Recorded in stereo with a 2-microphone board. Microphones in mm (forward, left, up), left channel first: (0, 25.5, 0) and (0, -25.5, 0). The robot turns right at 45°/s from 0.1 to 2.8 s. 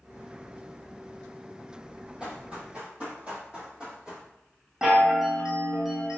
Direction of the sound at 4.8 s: 15° right (ahead or behind).